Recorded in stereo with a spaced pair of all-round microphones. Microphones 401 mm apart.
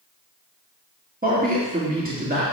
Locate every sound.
1.2 s a man speaking: 20° right (ahead or behind), 2.5 m